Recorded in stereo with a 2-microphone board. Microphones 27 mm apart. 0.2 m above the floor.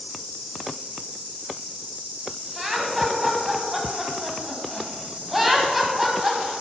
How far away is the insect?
About 1.1 m.